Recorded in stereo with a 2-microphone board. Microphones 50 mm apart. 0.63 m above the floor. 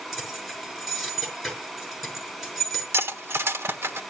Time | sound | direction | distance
0.1 | keys jangling | centre (ahead or behind) | 5 m
2.9 | cutlery clinking | 60° right (ahead or behind) | 1.1 m